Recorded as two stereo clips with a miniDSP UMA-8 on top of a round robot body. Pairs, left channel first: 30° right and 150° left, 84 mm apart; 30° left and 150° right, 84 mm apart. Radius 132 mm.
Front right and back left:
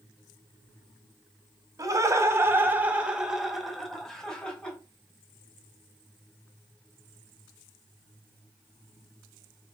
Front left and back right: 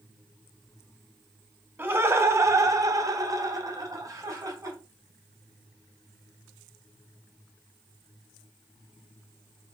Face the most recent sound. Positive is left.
turn(degrees=-105)